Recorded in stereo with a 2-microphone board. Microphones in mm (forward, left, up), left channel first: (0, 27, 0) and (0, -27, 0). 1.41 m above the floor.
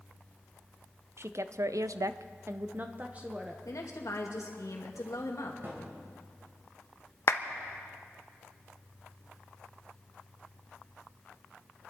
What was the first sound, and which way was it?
A woman speaking, 50° right (ahead or behind).